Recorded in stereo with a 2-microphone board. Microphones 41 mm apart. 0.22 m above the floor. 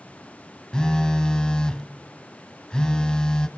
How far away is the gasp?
No gasp in this recording.